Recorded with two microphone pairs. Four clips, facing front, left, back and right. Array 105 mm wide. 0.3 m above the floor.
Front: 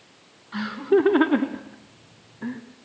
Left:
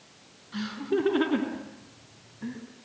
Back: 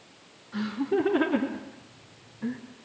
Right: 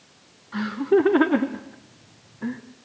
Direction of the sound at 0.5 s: 40° right.